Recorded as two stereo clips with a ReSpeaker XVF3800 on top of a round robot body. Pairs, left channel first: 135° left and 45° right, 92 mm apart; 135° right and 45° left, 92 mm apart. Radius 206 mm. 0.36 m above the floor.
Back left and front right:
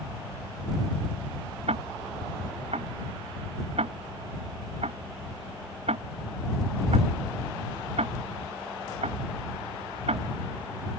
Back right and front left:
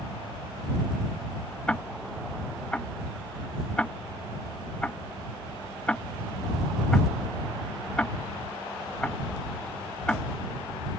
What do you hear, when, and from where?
1.7 s ticking: 55° right